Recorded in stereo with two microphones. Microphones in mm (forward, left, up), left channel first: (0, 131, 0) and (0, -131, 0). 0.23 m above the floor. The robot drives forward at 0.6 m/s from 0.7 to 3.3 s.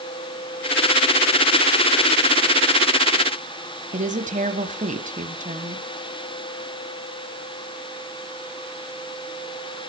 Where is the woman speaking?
30° right (ahead or behind), 1.5 m.